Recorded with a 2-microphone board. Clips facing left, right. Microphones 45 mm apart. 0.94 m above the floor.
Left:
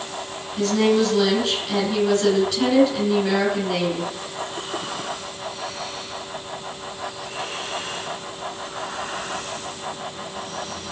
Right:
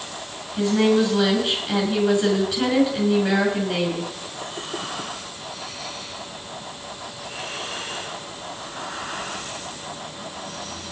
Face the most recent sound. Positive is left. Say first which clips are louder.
# even
turn(degrees=-10)  # may be behind; listen again after turning